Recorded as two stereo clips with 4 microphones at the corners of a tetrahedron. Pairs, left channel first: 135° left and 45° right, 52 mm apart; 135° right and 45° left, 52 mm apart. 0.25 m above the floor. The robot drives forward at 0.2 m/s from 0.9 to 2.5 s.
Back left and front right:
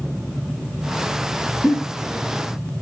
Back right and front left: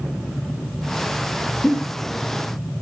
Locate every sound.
1.6 s a giggle: 140° left, 2 m